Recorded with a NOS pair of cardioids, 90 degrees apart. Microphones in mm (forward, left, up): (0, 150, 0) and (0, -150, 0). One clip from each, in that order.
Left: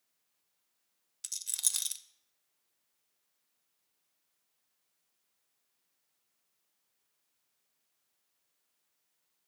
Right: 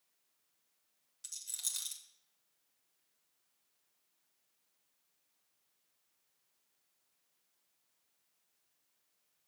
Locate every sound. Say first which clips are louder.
1.2 s a rattle: left 6 dB; 45° left, 0.7 m